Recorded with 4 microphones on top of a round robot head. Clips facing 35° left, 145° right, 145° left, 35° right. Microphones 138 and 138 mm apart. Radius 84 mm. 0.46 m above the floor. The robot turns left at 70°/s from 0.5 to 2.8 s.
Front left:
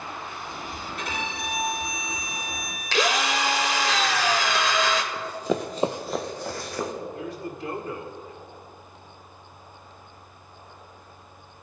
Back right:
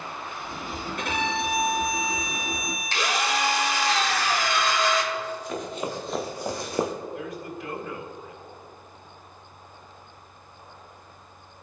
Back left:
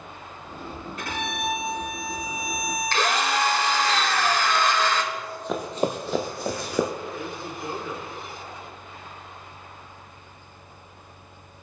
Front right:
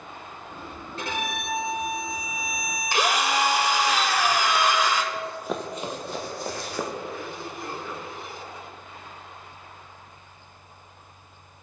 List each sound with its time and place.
1.0 s a violin: 100° right, 2.5 m; by 3.9 s 135° left, 2.5 m
2.9 s a drill: 45° left, 1.1 m
5.1 s running footsteps: 25° left, 0.9 m; by 6.9 s 145° left, 1.5 m
7.1 s a man speaking: 75° left, 1.8 m